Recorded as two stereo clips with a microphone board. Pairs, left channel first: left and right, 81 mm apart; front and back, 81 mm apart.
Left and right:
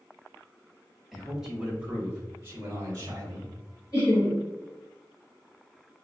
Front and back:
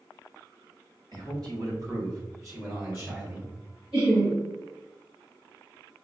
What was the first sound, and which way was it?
A man speaking, 175° right.